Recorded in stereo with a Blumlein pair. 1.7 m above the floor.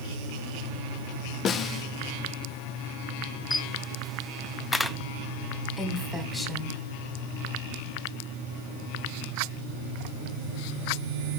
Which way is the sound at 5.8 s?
5° left.